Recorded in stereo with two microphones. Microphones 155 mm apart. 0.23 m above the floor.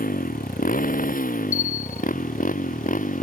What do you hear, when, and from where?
0.0 s a motorcycle: 70° left (ahead or behind); by 3.2 s 65° left (ahead or behind)
1.5 s a bell: 20° left (ahead or behind)